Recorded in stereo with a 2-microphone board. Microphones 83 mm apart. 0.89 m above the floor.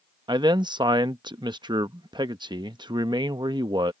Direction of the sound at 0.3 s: 60° right (ahead or behind).